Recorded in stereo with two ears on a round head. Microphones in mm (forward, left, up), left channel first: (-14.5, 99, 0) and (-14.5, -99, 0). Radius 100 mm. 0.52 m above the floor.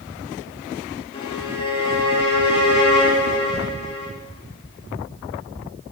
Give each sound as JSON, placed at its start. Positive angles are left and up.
{"t": 1.1, "sound": "a violin", "side_deg": 25, "distance_m": 1.2}